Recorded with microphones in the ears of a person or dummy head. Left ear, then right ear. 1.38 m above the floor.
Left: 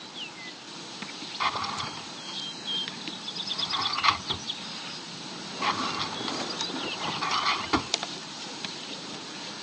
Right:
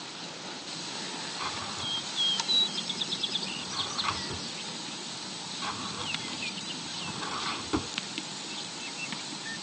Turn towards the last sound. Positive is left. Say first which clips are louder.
# left 8 dB
turn(degrees=60)  # may be behind; listen again after turning